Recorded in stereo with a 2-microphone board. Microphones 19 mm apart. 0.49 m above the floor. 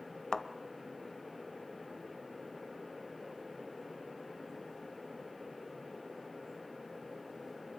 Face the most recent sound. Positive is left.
turn(degrees=40)  # may be behind; listen again after turning